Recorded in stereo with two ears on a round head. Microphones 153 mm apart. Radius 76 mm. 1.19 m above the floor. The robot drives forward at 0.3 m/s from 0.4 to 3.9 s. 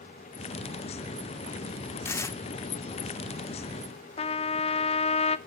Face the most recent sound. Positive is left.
turn(degrees=35)  # may be behind; listen again after turning